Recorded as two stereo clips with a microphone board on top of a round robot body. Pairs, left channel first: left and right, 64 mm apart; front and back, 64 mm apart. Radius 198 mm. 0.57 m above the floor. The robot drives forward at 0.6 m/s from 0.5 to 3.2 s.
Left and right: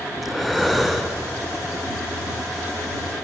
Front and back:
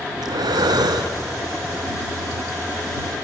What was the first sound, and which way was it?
Breathing, straight behind.